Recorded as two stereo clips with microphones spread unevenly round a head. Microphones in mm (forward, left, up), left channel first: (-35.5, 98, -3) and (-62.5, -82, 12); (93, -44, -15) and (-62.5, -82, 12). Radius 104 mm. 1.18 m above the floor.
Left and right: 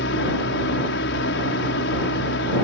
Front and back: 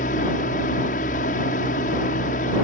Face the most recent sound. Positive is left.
turn(degrees=60)